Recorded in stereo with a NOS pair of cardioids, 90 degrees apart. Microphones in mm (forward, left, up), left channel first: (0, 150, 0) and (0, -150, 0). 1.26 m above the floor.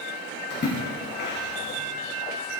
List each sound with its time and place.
0.5 s a splash: 35° left, 5.5 m